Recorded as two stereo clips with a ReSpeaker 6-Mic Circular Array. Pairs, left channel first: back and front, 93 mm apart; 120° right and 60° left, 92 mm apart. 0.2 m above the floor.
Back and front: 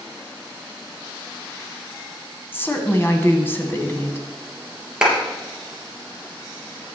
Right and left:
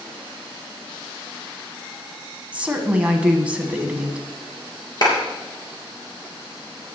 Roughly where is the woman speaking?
Behind left.